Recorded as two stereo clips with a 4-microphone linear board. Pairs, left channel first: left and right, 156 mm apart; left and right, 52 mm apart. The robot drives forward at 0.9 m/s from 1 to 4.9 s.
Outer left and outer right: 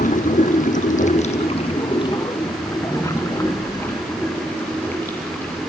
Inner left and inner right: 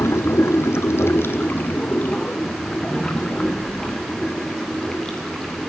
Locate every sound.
0.0 s running water: 55° left (ahead or behind), 1.1 m; by 5.7 s 10° left (ahead or behind), 4 m